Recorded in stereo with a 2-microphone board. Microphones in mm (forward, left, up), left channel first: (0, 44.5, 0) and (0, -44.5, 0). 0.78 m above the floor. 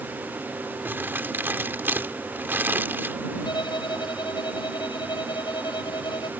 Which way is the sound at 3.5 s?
55° left (ahead or behind).